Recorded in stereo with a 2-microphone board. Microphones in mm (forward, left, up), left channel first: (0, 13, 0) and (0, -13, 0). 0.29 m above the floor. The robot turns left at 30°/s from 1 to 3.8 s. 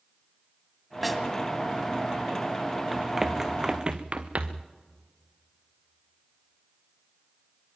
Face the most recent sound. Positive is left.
turn(degrees=-65)  # may be behind; listen again after turning